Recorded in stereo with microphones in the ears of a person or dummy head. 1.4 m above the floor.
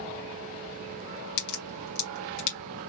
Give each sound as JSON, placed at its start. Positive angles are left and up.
{"t": 1.4, "sound": "a crack", "side_deg": 55, "distance_m": 1.6}